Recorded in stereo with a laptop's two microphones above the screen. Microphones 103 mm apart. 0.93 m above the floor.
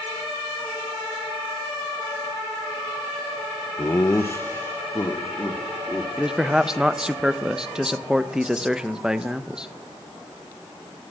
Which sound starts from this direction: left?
Laughter, at 3.8 s.